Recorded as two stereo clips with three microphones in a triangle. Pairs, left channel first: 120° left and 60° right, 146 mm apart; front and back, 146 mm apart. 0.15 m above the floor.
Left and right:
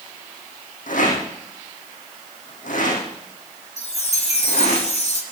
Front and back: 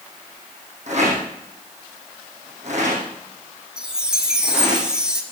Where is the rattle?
145° left, 6 m.